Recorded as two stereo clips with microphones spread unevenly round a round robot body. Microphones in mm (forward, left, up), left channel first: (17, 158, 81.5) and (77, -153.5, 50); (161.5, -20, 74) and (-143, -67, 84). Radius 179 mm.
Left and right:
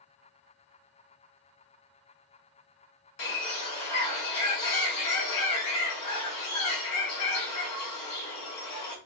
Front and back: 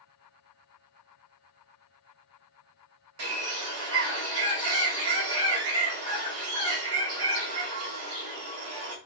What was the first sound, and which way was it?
A bird, 145° left.